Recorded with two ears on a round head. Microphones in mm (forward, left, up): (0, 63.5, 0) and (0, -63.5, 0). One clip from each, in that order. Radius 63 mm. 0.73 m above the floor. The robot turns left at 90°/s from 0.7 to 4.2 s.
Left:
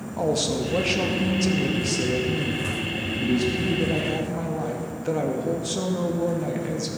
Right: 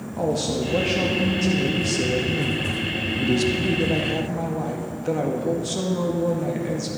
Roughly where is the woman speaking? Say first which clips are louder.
Even; behind left.